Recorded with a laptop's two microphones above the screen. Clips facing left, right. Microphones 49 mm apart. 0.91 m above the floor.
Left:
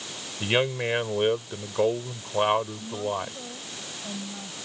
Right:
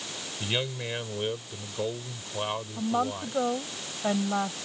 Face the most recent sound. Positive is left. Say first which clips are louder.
# right 2 dB
turn(degrees=-65)  # may be behind; listen again after turning